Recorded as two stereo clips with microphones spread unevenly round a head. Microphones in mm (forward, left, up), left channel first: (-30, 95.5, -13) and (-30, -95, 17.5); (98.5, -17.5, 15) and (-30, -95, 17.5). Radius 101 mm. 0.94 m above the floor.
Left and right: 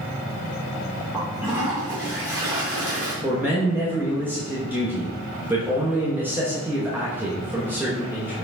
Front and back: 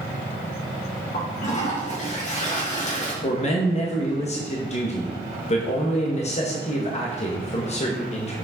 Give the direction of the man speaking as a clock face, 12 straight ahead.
12 o'clock.